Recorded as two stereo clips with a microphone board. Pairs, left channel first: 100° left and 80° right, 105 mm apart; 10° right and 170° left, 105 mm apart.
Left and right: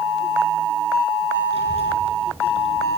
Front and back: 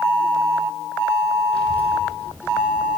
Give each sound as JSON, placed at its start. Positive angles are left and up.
{"t": 1.5, "sound": "a child speaking", "azimuth_deg": -90, "distance_m": 4.0}